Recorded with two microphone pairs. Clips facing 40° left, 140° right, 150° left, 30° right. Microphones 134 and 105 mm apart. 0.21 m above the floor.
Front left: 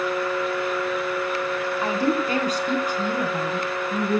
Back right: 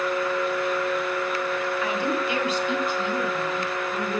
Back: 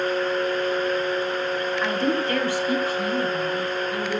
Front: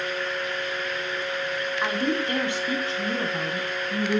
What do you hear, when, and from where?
1.8 s a woman speaking: 40° left, 1.9 m; by 4.2 s 10° left, 2.5 m